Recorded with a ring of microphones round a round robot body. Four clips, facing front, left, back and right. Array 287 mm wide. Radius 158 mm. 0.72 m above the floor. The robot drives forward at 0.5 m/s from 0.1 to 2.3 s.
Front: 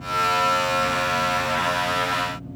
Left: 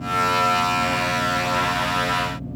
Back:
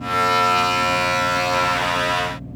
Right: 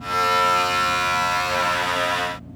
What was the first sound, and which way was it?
Only background noise.